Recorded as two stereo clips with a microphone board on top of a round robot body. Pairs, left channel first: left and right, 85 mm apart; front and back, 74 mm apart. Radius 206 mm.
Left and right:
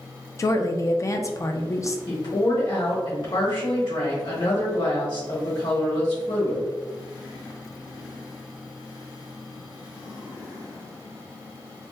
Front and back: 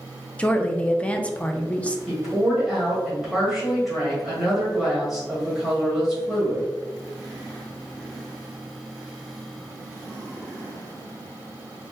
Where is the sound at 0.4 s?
65° left, 0.6 m.